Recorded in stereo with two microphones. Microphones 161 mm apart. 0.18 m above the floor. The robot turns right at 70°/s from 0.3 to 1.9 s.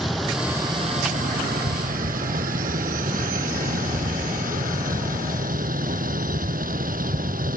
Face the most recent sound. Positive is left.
turn(degrees=-70)